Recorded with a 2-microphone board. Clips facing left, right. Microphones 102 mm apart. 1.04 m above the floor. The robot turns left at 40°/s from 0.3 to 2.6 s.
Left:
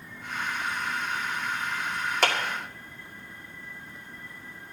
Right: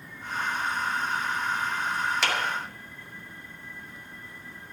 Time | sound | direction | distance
2.2 | a clap | 50° left (ahead or behind) | 1.8 m